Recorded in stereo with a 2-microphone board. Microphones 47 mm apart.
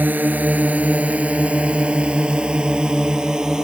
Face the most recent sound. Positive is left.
turn(degrees=-15)  # may be behind; listen again after turning